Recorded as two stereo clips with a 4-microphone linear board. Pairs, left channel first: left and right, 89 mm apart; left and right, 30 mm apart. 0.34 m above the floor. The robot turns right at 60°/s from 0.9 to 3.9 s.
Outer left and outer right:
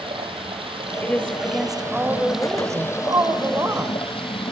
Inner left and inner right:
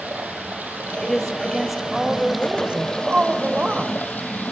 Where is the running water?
90° right, 4 m; by 4.5 s 90° left, 4 m.